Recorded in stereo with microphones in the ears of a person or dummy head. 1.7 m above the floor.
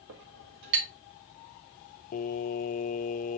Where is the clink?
60° right (ahead or behind), 1.8 m.